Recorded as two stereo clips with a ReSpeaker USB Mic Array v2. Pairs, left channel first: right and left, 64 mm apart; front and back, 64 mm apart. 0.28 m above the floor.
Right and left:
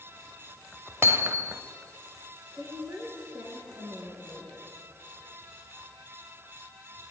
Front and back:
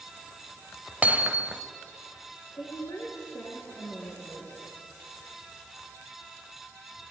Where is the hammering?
120° left, 1.2 m.